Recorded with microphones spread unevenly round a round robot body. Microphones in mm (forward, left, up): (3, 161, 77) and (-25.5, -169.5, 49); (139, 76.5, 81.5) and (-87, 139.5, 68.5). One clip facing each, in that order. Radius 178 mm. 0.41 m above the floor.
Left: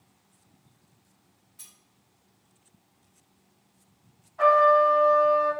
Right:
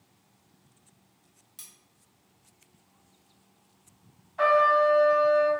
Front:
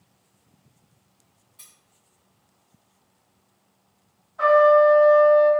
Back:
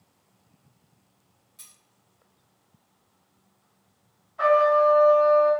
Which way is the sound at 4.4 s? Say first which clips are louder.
Left 2 dB, front 5 dB; 130° right.